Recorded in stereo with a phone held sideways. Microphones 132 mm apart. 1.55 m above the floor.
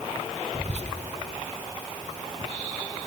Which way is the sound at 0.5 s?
55° right (ahead or behind).